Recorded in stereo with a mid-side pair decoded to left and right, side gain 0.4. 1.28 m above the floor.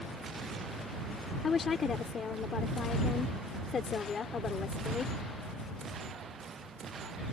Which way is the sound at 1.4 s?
50° left.